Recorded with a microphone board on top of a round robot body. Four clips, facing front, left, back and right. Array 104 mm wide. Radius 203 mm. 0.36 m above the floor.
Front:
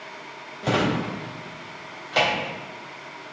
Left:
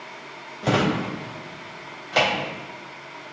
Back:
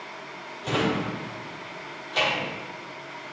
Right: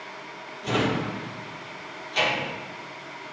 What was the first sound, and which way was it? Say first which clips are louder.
A drawer: left 3 dB, front 2 dB; 60° left.